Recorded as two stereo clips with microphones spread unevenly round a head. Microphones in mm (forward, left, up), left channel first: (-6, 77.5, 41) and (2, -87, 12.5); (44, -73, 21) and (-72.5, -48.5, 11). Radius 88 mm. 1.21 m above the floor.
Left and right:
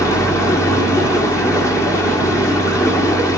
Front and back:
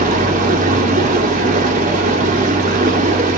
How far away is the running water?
About 2 m.